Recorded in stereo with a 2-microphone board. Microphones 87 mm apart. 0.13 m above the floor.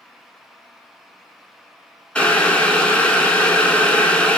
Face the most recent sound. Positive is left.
turn(degrees=15)  # may be behind; listen again after turning